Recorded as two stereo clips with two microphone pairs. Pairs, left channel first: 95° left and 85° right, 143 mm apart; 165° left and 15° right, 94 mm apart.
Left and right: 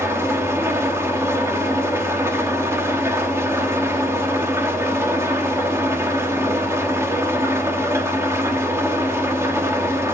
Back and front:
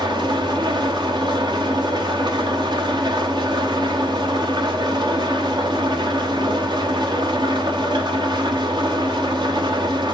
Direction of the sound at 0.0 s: 20° right.